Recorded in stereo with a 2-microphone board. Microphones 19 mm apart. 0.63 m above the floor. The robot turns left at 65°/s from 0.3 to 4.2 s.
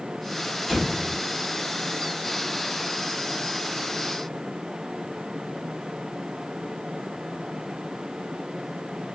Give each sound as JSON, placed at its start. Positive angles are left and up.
{"t": 0.7, "sound": "an explosion", "side_deg": 5, "distance_m": 1.5}